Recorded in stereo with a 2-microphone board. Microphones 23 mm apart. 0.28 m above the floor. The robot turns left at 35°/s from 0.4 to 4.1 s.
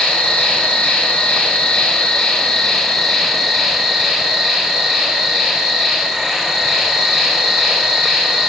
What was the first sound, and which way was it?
An insect, 105° left.